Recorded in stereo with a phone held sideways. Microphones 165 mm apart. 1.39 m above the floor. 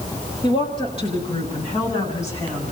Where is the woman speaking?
30° left (ahead or behind), 7 m; by 2.7 s 40° left (ahead or behind), 10 m.